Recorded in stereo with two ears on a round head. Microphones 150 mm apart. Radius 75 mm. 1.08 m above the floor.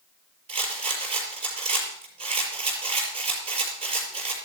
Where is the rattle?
40° right (ahead or behind), 5.5 m.